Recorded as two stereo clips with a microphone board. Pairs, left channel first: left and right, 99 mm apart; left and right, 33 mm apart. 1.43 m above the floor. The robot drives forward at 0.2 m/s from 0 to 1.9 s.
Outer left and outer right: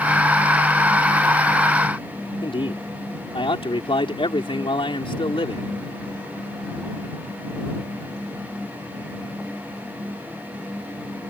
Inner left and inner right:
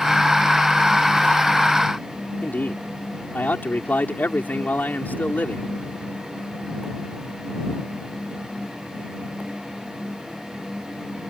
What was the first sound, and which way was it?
A man speaking, 65° left (ahead or behind).